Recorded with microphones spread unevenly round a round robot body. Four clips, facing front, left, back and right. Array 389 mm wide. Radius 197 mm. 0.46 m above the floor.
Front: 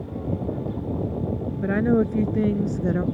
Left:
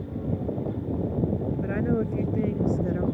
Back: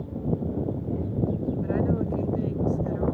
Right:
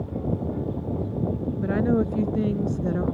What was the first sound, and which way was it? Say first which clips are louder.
A woman speaking: right 6 dB, front 8 dB; 25° right.